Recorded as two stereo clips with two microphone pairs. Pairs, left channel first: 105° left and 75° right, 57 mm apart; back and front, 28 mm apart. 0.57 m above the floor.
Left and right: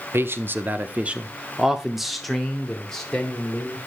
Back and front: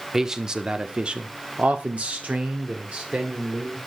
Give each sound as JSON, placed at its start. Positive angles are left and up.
{"t": 0.1, "sound": "a man speaking", "azimuth_deg": -70, "distance_m": 1.0}